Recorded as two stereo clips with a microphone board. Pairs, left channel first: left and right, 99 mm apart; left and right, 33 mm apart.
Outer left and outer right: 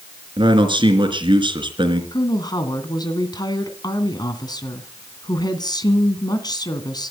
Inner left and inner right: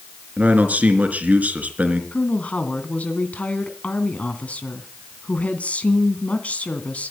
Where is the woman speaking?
45° left (ahead or behind), 2 m.